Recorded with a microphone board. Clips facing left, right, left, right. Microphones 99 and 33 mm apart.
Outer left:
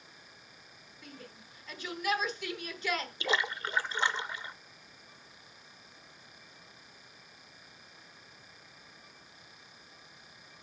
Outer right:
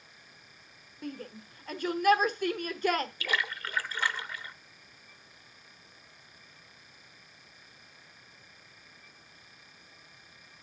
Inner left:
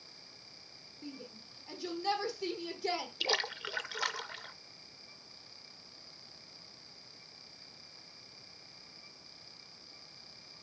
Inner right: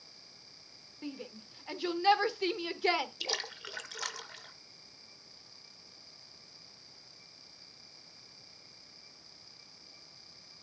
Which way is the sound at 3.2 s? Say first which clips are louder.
Outer left 1 dB, inner left 4 dB; 20° left (ahead or behind).